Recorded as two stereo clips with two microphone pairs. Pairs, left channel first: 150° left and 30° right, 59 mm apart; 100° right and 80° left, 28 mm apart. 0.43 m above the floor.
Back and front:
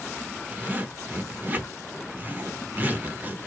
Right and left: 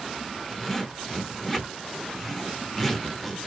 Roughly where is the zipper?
Ahead.